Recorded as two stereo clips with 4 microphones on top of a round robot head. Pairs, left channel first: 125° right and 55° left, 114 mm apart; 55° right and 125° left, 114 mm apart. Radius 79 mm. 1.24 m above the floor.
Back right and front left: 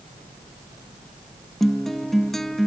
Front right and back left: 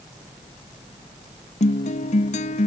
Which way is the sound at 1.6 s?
40° right.